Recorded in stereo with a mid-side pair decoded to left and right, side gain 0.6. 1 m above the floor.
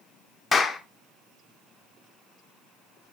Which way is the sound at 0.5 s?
25° left.